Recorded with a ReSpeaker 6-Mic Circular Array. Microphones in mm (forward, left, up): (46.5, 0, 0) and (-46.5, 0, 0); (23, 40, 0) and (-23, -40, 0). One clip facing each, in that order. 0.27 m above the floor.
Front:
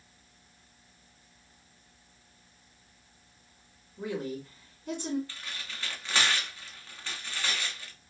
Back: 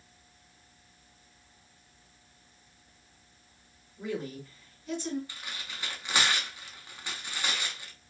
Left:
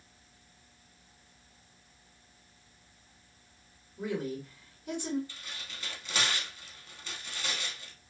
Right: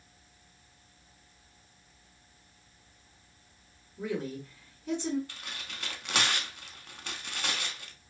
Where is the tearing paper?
105° right, 0.7 m.